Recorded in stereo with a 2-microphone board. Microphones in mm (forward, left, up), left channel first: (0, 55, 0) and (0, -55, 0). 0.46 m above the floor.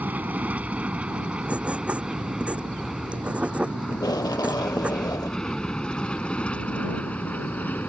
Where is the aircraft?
15° right (ahead or behind); by 7.9 s 15° left (ahead or behind).